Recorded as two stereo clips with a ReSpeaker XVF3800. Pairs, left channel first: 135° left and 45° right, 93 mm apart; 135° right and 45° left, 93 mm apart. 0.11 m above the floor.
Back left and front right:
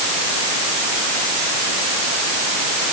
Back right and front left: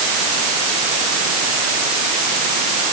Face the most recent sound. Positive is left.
No sound to turn to.